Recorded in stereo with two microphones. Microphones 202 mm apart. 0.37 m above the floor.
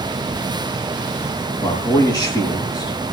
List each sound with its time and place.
1.6 s a man speaking: 20° left (ahead or behind), 7 m